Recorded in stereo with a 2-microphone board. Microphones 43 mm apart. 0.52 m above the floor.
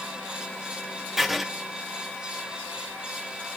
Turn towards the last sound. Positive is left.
turn(degrees=0)  # may be behind; listen again after turning